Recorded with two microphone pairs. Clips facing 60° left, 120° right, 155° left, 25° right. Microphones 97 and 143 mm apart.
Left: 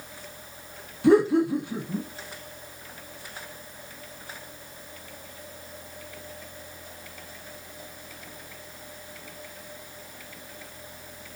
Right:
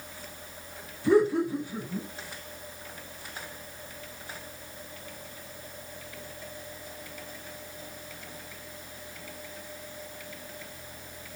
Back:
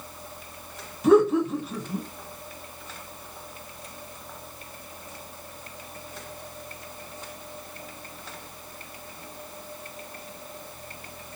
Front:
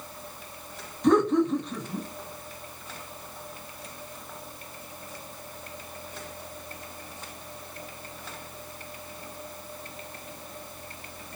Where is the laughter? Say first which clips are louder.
Left 4 dB, back 3 dB; 70° left, 0.8 m.